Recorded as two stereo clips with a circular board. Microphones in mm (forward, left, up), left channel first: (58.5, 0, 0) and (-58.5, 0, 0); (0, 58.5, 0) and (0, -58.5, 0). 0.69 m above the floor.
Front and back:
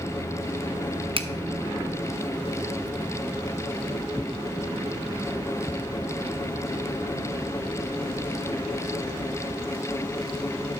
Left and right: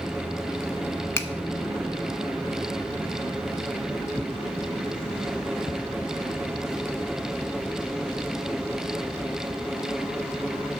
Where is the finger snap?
155° left, 0.7 m.